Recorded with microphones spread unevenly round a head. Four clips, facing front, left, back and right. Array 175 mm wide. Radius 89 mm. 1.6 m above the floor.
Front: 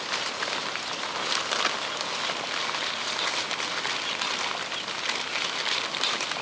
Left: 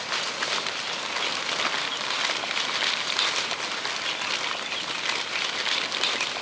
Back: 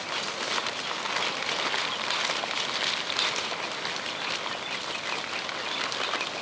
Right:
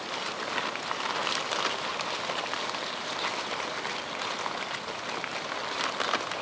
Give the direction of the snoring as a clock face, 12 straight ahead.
I don't hear snoring.